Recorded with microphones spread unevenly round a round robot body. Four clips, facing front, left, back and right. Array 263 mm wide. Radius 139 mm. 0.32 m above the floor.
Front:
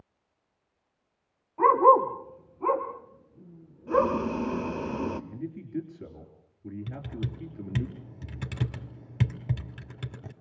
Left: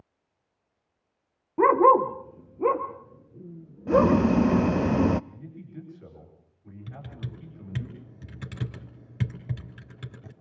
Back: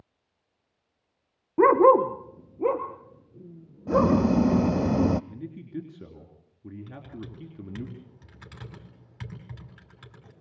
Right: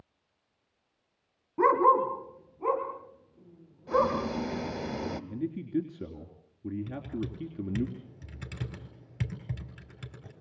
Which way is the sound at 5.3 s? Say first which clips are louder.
Right 12 dB, front 2 dB; 90° right.